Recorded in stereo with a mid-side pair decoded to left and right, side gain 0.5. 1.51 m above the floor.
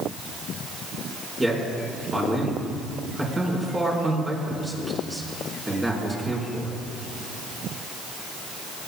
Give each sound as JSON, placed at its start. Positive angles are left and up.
{"t": 1.4, "sound": "a man speaking", "azimuth_deg": -15, "distance_m": 5.0}